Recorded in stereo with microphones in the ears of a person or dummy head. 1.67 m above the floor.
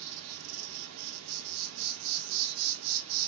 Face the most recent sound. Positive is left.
turn(degrees=-80)